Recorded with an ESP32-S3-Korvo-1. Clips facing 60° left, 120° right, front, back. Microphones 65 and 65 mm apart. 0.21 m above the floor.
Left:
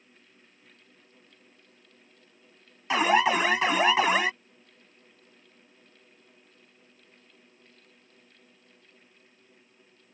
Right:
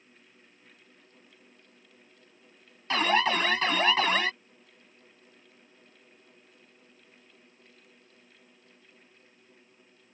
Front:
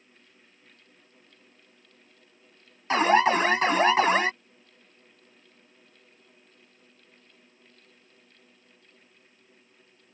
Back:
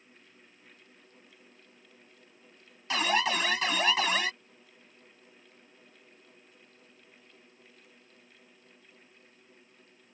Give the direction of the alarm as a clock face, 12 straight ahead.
12 o'clock.